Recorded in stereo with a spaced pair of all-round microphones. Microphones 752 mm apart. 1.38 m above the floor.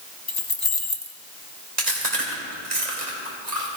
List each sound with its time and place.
0.3 s keys jangling: 30° left (ahead or behind), 1.1 m
1.8 s chewing: 60° right (ahead or behind), 2.5 m